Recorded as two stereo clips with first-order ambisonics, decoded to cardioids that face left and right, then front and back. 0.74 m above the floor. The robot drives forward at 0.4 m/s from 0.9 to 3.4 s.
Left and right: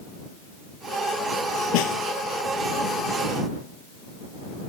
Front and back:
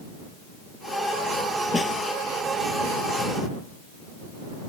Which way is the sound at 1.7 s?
85° left.